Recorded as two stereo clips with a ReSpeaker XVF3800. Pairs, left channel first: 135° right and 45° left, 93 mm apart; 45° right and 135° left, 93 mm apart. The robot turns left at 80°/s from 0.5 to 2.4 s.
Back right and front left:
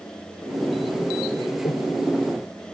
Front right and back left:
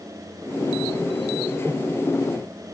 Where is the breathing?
150° right, 3 m; by 1.9 s 170° right, 3 m.